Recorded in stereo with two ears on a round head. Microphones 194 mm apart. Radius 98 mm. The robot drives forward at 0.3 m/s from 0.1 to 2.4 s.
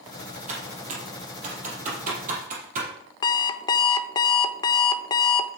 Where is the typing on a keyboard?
35° right (ahead or behind), 5.5 m.